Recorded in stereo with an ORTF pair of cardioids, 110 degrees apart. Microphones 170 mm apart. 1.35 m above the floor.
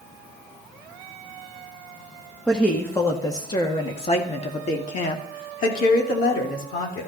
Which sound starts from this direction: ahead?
A woman speaking, at 2.5 s.